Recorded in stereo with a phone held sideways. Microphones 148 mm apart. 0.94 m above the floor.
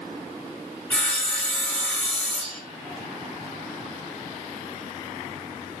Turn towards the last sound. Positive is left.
turn(degrees=10)  # may be behind; listen again after turning